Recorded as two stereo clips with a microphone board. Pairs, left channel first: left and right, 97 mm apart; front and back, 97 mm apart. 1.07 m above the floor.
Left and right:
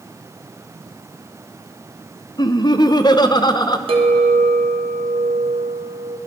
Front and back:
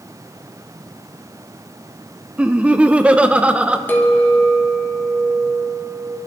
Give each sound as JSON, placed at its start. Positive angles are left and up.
{"t": 2.4, "sound": "laughter", "azimuth_deg": 105, "distance_m": 0.7}
{"t": 3.9, "sound": "a clink", "azimuth_deg": -70, "distance_m": 1.3}